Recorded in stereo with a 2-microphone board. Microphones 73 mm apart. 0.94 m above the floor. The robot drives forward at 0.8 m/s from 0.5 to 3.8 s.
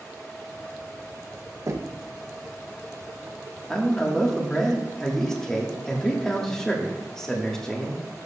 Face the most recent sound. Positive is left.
turn(degrees=10)  # may be behind; listen again after turning